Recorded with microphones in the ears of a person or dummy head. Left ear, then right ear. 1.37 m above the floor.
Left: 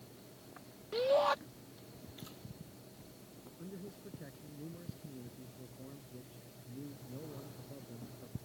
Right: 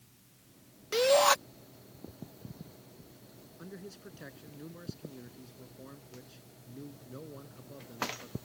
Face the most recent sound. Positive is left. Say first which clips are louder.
# right 3 dB
turn(degrees=-70)  # may be behind; listen again after turning